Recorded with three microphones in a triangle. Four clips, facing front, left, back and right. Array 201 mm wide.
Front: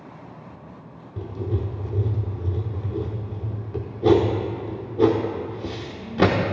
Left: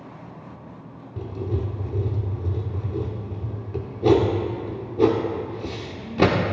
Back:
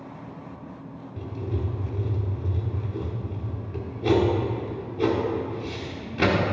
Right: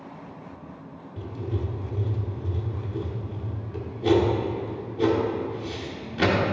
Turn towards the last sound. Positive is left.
turn(degrees=45)